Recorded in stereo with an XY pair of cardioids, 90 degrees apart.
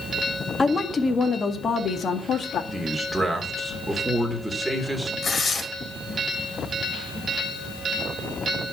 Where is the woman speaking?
25° left, 1.9 m; by 2.6 s 65° left, 2 m.